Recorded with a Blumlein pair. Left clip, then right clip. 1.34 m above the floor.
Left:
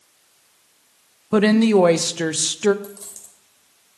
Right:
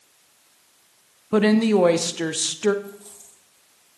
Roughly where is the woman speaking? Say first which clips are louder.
Left 3 dB; ahead.